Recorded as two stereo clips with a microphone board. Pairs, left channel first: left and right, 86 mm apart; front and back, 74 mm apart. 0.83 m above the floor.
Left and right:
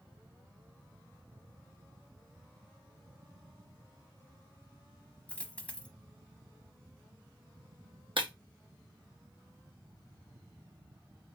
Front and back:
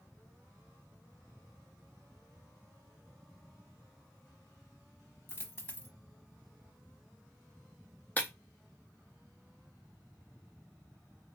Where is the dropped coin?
25° left, 0.8 m.